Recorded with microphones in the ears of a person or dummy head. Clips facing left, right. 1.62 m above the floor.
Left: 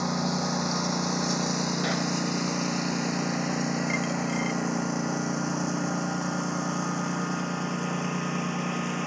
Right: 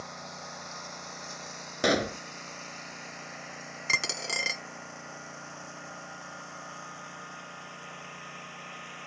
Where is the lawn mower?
70° left (ahead or behind); by 9.1 s 65° left (ahead or behind).